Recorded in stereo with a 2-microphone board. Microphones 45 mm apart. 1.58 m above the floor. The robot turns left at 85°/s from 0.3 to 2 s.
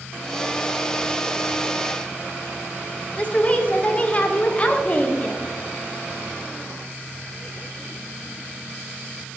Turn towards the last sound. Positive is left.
turn(degrees=30)  # may be behind; listen again after turning